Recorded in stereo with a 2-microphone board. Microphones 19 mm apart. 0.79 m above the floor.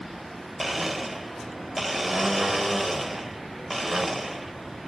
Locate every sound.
0.6 s a blender: 5° right (ahead or behind), 0.7 m